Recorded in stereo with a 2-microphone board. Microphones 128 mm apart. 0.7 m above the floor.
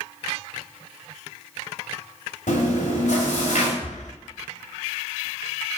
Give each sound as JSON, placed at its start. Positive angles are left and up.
{"t": 2.5, "sound": "chewing", "side_deg": 85, "distance_m": 2.0}
{"t": 3.8, "sound": "breathing", "side_deg": 70, "distance_m": 0.7}